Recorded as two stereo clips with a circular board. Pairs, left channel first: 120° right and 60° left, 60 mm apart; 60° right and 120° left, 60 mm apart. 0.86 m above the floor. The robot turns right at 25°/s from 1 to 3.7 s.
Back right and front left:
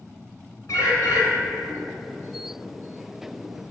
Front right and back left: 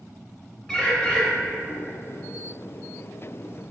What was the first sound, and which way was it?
A bird, 135° right.